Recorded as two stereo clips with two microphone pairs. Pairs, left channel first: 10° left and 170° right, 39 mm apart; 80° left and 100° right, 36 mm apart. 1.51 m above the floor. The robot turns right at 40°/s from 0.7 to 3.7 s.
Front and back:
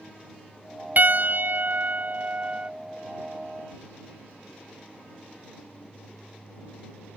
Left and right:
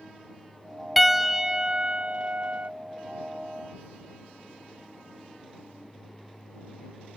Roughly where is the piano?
Behind.